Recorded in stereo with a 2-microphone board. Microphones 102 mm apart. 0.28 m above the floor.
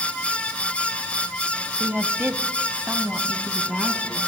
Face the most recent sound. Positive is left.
turn(degrees=-10)  # may be behind; listen again after turning